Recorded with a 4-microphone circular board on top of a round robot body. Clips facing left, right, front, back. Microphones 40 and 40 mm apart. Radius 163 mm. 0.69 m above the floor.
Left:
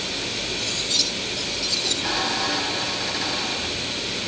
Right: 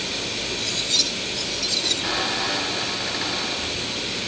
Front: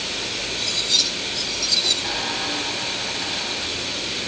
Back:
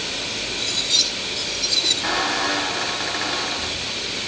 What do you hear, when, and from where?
0.6 s cutlery clinking: 110° right, 9.5 m
2.0 s a squeak: 165° right, 1.5 m